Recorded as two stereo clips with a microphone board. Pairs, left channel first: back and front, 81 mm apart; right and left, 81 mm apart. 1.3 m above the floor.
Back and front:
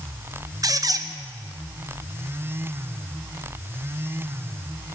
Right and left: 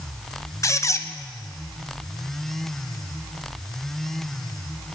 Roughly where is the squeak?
Ahead right.